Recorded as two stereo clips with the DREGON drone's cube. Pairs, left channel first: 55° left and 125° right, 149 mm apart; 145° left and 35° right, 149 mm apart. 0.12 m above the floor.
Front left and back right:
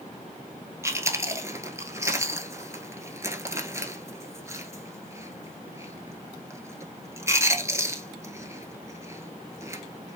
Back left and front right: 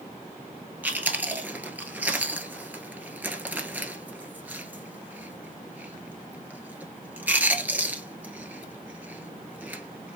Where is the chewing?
95° right, 1.0 m.